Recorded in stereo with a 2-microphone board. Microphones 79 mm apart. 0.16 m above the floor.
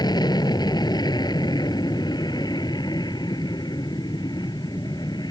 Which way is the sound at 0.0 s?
65° left (ahead or behind).